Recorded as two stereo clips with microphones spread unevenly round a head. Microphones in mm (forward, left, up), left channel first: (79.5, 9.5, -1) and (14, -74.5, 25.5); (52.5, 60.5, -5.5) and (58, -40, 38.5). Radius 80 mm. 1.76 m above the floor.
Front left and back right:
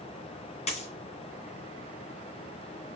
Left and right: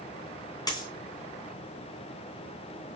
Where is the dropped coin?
30° left, 3 m.